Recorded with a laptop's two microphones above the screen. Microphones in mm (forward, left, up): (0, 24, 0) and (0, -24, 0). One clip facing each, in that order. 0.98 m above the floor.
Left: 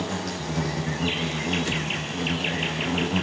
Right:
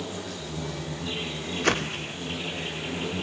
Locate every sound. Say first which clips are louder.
0.0 s an insect: left 5 dB; 85° left, 4.5 m
1.6 s a whoosh: right 2 dB; 65° right (ahead or behind), 0.5 m